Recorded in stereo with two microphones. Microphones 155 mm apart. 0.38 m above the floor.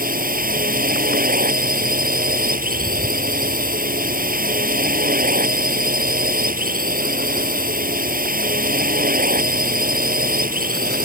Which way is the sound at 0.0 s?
70° right (ahead or behind).